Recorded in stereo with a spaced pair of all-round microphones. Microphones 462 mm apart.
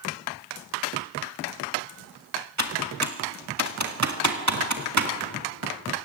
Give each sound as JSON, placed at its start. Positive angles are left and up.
{"t": 2.6, "sound": "typing on a keyboard", "side_deg": -35, "distance_m": 1.9}